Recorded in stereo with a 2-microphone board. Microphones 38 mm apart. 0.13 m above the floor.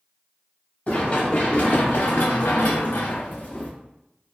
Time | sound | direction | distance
0.9 | running footsteps | 45° left (ahead or behind) | 1.5 m